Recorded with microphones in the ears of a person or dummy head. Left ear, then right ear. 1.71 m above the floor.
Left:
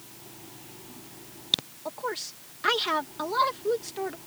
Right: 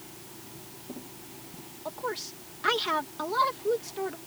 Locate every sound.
1.9 s a woman speaking: 5° left (ahead or behind)